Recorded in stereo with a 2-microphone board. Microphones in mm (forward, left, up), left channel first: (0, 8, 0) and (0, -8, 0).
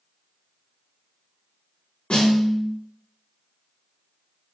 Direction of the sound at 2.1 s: 70° left (ahead or behind).